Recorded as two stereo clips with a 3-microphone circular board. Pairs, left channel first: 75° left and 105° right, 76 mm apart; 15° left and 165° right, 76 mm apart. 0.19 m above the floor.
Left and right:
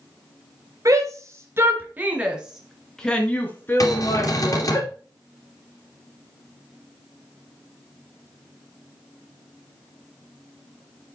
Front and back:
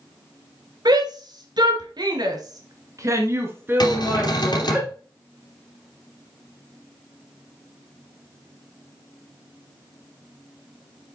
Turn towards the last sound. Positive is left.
turn(degrees=35)